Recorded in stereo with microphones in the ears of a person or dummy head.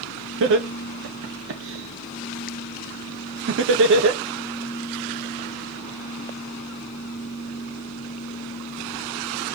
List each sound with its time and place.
0.4 s laughter: 65° right (ahead or behind), 2.0 m